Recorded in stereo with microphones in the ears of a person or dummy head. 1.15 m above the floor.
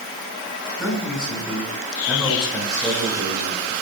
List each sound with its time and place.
0.8 s a man speaking: 10° left (ahead or behind), 5 m